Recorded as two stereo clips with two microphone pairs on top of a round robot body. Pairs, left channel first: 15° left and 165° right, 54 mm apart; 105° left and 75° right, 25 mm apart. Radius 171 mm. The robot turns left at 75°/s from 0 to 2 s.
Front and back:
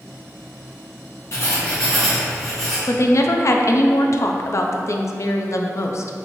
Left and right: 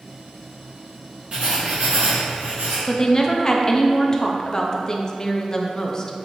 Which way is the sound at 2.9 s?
40° left.